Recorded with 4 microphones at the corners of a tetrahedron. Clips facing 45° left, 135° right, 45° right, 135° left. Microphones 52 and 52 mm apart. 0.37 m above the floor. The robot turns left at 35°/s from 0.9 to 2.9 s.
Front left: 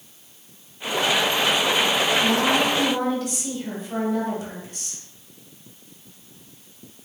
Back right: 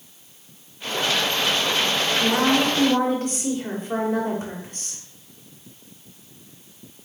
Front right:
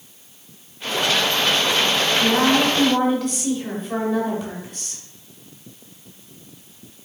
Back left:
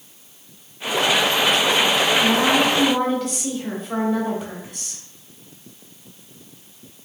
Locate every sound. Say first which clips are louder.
2.2 s a woman speaking: back right 4 dB, front right 3 dB; 115° right, 1.6 m; by 5.0 s 140° right, 1.6 m